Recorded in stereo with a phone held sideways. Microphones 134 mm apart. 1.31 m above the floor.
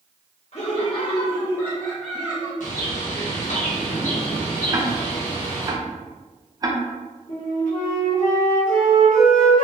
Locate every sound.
0.5 s laughter: 50° left (ahead or behind), 1.0 m; by 2.5 s 15° right (ahead or behind), 0.8 m
2.6 s a bird: 80° left, 1.1 m
4.7 s ticking: 30° right (ahead or behind), 0.5 m
7.3 s a flute: 70° left (ahead or behind), 1.1 m